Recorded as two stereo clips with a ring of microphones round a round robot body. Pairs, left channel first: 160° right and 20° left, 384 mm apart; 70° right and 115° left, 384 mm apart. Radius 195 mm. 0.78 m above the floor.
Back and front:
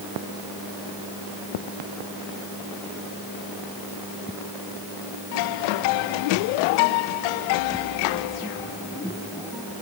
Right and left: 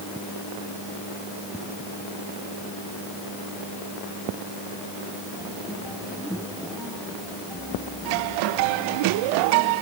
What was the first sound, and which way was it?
Only background noise.